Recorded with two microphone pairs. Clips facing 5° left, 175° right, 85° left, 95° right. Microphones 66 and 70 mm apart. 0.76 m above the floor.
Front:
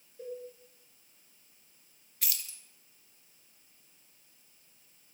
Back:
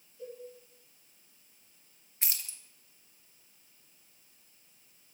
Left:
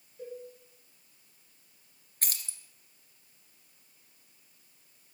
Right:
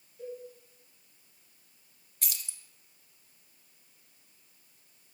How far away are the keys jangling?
About 0.6 m.